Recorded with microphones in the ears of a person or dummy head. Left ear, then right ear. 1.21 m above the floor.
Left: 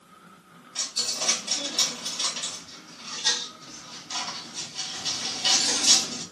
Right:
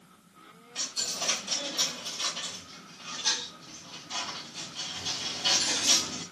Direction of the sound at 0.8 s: 15° left (ahead or behind).